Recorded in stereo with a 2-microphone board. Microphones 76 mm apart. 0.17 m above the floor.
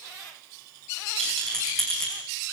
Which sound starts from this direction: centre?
A rattle, at 1.2 s.